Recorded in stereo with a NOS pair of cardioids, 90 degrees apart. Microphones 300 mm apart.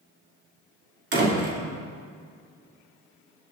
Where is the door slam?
35° right, 3.5 m.